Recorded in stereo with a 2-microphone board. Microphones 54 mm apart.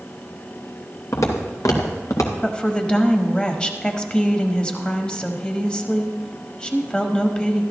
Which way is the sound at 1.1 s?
85° left.